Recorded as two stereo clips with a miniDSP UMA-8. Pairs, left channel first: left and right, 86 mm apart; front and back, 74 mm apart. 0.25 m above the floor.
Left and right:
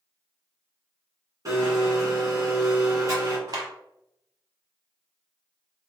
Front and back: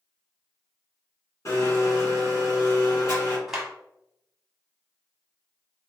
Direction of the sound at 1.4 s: 45° right.